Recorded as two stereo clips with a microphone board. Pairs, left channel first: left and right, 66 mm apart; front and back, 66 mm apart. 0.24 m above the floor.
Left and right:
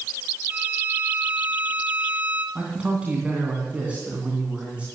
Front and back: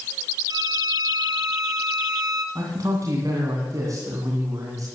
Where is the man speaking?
160° right, 2.5 m.